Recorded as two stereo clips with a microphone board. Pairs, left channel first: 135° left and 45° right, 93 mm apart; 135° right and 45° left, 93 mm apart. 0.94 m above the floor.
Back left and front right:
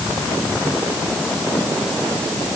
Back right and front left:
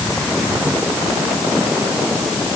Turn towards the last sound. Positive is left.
No sound to turn to.